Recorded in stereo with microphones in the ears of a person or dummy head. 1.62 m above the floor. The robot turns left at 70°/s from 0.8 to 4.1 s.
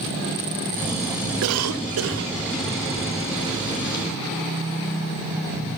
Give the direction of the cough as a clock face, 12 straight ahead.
2 o'clock.